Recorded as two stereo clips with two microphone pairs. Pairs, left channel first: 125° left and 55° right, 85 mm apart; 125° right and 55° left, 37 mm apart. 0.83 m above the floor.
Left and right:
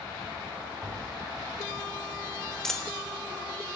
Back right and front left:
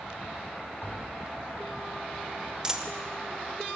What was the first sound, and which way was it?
Tapping, 140° right.